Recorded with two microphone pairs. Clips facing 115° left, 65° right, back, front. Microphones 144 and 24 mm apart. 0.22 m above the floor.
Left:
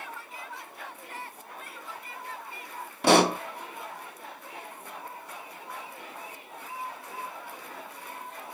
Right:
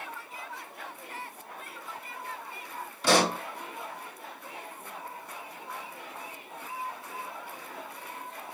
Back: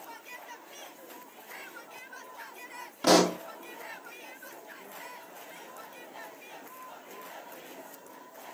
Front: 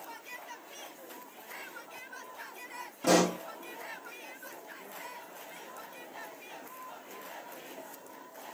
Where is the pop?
145° left, 1.4 m.